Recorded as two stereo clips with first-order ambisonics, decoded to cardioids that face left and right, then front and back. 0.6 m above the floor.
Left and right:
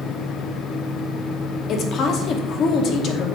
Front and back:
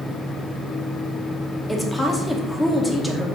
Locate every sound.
1.7 s a woman speaking: 80° left, 0.9 m